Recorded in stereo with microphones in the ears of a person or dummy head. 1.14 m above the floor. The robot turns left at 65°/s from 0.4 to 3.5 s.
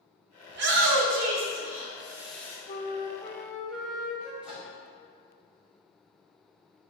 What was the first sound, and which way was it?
A shout, 65° right.